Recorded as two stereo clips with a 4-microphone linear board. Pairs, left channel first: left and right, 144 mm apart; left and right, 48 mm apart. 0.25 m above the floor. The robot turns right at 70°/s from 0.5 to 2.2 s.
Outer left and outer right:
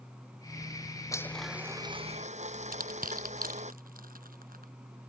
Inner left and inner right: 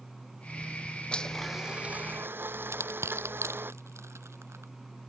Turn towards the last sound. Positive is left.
turn(degrees=-85)